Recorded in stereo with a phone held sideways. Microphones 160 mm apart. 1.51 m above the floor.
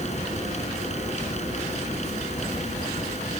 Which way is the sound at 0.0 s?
45° left (ahead or behind).